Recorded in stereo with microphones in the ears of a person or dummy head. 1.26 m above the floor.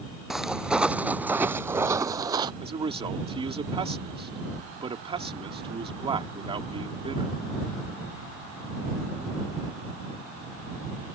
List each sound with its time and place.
0.3 s footsteps: centre (ahead or behind); by 2.5 s 20° right (ahead or behind)
2.6 s a man speaking: 25° right (ahead or behind)